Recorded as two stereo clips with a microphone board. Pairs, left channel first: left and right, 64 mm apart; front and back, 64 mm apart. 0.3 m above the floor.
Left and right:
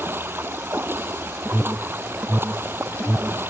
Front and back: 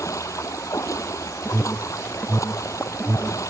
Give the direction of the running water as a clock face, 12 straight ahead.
1 o'clock.